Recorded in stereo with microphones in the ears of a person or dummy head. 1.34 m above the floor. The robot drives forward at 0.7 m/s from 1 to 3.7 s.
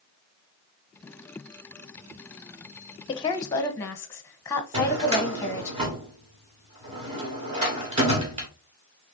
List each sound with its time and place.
3.1 s a woman speaking: 30° left (ahead or behind), 0.6 m; by 5.7 s 15° left (ahead or behind), 1.0 m
4.7 s a drawer: 30° right (ahead or behind), 1.2 m